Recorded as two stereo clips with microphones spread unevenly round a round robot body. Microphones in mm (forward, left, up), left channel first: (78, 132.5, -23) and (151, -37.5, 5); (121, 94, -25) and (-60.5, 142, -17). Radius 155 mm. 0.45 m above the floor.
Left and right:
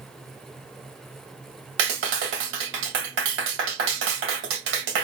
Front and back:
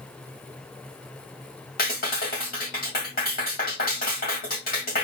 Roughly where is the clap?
Right.